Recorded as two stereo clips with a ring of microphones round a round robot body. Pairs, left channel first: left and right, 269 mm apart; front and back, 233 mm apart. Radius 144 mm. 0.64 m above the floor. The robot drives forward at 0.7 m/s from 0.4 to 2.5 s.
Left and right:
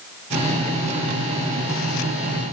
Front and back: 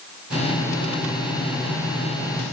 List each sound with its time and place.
Only background noise.